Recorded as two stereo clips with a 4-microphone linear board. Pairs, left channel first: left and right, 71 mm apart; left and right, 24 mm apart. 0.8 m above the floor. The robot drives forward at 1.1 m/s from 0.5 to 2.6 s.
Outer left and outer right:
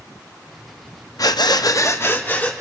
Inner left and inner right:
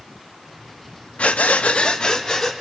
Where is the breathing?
60° left (ahead or behind), 0.6 m; by 2.5 s 25° left (ahead or behind), 1.3 m.